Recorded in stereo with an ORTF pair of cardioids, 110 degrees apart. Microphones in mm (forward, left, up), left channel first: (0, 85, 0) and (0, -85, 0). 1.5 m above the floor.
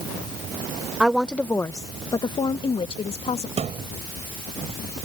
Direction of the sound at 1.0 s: 5° right.